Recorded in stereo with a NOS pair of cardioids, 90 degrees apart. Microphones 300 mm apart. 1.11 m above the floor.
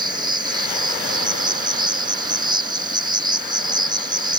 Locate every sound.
0.0 s an insect: 15° right